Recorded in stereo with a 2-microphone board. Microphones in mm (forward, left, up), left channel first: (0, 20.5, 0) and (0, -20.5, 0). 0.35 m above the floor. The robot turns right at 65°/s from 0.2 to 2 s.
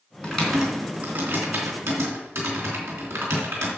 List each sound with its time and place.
0.2 s typing on a keyboard: 20° left (ahead or behind), 3.5 m; by 3.7 s 75° right (ahead or behind), 3.5 m